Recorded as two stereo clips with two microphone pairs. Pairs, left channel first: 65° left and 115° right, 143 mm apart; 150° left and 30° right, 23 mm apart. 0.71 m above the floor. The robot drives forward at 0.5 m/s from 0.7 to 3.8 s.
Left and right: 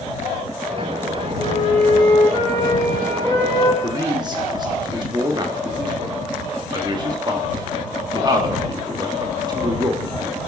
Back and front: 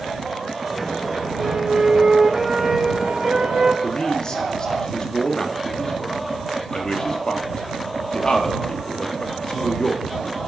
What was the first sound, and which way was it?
A flute, 5° left.